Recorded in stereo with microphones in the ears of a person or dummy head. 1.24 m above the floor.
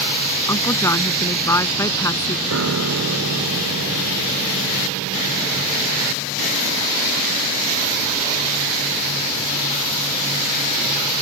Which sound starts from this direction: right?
A piano, at 2.5 s.